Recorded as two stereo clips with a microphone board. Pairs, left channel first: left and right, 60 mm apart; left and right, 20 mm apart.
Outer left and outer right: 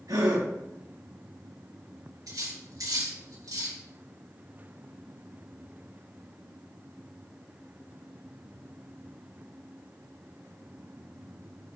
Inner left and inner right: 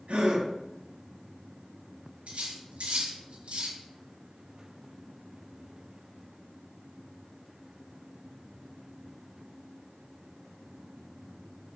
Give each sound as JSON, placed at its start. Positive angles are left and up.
{"t": 0.1, "sound": "a gasp", "side_deg": -80, "distance_m": 6.0}
{"t": 2.3, "sound": "cutlery clinking", "side_deg": -75, "distance_m": 5.0}